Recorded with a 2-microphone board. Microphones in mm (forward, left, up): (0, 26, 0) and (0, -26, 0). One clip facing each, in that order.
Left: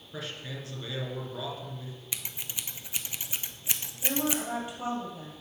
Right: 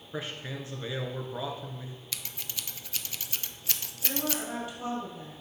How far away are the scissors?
About 0.6 m.